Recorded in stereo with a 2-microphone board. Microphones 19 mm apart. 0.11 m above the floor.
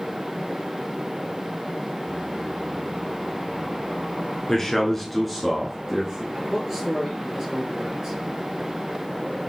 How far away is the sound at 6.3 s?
About 2.5 m.